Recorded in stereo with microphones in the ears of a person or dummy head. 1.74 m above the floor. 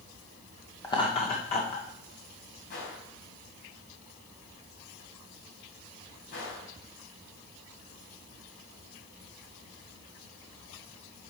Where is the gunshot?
60° left (ahead or behind), 3.5 m.